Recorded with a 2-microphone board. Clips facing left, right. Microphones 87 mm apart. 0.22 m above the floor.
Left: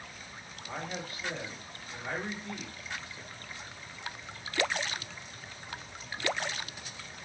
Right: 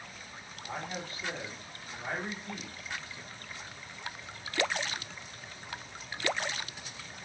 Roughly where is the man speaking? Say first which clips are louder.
Even; right.